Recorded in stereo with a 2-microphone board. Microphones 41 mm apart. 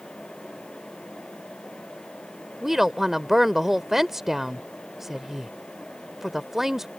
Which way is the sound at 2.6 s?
10° right (ahead or behind).